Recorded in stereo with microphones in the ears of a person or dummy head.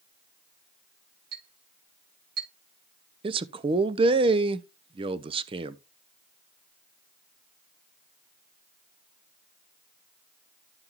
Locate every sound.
1.3 s a clink: 55° right (ahead or behind), 7.5 m
3.2 s a man speaking: 25° right (ahead or behind), 0.5 m